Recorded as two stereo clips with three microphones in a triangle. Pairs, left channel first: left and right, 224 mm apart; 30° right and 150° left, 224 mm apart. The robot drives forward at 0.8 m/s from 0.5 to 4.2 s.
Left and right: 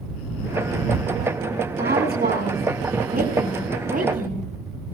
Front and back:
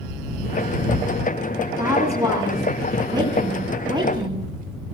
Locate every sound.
1.7 s a woman speaking: 135° right, 9.5 m; by 4.5 s 140° right, 11 m